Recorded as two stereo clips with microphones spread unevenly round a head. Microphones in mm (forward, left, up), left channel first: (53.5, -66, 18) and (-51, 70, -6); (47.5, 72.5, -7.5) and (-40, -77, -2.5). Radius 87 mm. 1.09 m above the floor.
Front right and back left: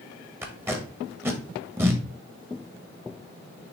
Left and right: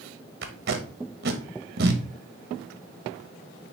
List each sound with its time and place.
0.4 s tape being pulled: 155° right, 1.3 m